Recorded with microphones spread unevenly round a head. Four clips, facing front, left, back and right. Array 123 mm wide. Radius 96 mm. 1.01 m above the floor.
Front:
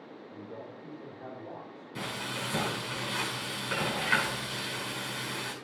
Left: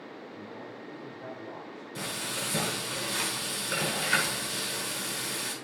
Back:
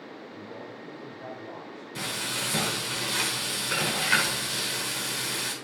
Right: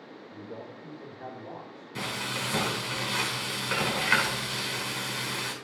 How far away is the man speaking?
About 3 m.